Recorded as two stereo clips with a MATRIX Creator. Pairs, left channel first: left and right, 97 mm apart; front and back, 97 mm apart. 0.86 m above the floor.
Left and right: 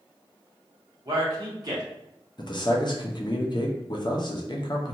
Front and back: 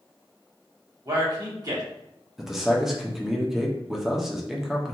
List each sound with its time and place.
1.1 s a man speaking: 135° right, 1.1 m
2.4 s a man speaking: 95° left, 0.6 m